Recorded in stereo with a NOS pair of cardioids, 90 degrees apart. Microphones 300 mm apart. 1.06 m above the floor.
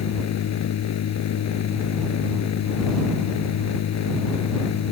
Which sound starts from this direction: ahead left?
A machine running, at 0.0 s.